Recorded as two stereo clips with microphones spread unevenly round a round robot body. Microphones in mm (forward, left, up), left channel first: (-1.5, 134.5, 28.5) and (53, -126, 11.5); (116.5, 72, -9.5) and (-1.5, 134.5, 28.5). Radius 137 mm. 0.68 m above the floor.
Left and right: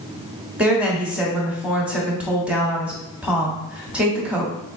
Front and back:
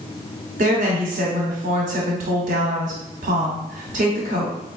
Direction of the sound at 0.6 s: 160° right.